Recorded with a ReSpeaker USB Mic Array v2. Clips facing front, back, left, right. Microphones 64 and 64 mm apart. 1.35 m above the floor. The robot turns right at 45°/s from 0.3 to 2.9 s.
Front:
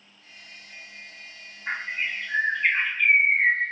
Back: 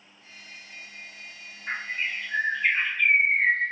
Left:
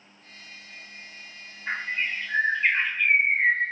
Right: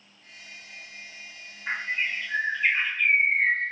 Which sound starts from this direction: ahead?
A bird, at 1.7 s.